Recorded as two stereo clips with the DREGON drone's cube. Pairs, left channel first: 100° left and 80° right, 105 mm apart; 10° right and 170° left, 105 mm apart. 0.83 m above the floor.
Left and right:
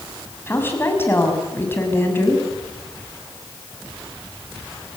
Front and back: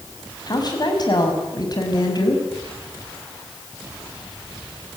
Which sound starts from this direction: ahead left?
A woman speaking, at 0.5 s.